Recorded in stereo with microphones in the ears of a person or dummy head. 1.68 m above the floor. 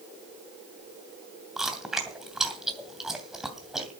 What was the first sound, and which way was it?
Chewing, 5° right (ahead or behind).